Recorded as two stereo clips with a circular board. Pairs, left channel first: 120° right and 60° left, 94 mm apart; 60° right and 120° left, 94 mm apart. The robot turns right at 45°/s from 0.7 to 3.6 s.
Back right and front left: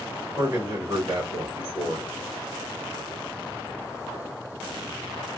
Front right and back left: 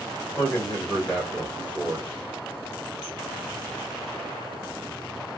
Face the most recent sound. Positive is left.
turn(degrees=135)